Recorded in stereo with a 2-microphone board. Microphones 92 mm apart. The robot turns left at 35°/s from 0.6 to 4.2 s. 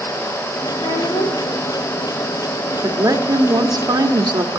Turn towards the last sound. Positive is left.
turn(degrees=-90)